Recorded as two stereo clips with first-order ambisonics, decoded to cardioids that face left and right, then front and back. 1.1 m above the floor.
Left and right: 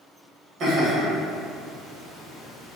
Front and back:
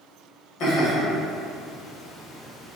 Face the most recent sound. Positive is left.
turn(degrees=5)